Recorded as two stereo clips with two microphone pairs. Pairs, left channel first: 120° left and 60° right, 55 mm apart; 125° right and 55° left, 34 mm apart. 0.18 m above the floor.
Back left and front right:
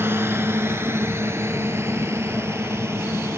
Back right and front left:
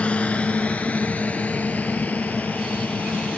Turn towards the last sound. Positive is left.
turn(degrees=-95)